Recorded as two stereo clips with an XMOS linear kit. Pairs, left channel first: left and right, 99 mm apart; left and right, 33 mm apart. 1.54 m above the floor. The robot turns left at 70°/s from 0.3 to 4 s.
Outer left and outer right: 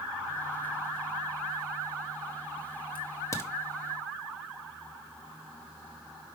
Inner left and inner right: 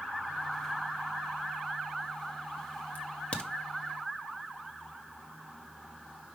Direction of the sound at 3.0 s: 55° left (ahead or behind).